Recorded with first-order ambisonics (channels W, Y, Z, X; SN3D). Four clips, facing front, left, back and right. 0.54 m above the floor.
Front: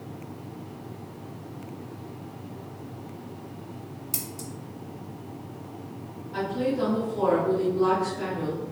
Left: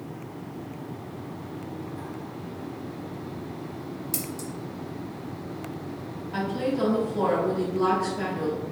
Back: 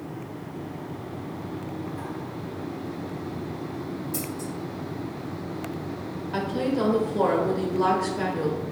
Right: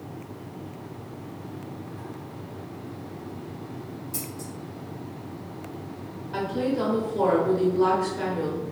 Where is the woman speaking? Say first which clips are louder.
Right 1 dB, back 1 dB; 175° right, 0.8 m.